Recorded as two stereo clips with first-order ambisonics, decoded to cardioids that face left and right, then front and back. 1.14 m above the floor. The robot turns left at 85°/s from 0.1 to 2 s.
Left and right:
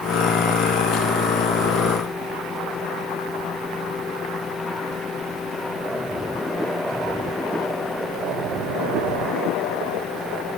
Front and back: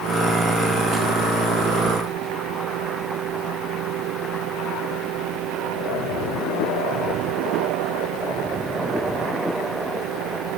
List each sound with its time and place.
Only background noise.